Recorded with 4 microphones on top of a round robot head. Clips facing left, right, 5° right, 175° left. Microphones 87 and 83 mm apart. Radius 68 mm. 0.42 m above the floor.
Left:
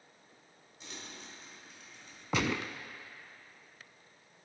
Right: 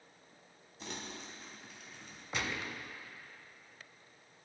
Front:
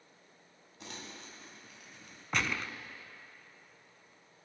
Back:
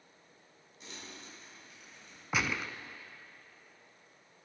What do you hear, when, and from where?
0.8 s crumpling: 45° right, 3 m
2.3 s a gunshot: 90° left, 0.6 m